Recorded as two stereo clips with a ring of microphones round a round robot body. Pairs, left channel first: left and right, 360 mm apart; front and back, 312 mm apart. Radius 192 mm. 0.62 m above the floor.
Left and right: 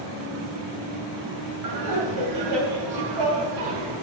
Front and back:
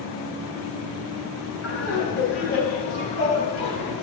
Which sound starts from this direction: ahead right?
Laughter, at 1.6 s.